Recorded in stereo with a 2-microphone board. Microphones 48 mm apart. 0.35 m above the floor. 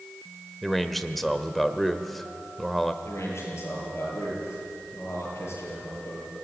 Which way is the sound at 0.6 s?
5° left (ahead or behind).